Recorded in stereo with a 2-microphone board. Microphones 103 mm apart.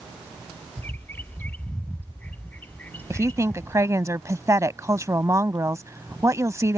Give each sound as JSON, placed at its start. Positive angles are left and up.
{"t": 0.8, "sound": "a bird", "side_deg": 20}
{"t": 3.1, "sound": "a woman speaking", "side_deg": -30}